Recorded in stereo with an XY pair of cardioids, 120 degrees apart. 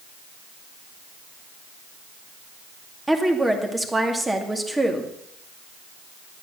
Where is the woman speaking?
10° right, 2.5 m.